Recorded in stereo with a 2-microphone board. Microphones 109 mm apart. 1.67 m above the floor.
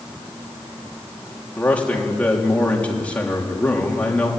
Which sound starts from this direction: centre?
A man speaking, at 1.6 s.